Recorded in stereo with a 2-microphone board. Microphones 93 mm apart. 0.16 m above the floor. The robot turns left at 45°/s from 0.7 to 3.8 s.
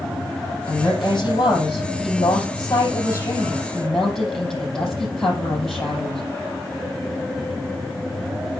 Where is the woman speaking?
145° left, 5.5 m; by 6.2 s 5° left, 5.5 m.